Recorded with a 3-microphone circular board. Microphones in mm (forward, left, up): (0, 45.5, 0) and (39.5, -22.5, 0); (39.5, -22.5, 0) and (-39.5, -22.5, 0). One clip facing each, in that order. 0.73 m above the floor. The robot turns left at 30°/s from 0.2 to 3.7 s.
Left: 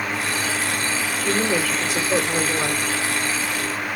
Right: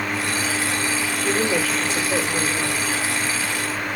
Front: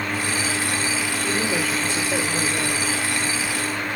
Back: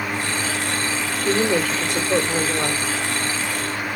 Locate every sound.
1.2 s a woman speaking: 140° right, 1.6 m; by 2.8 s 175° left, 1.6 m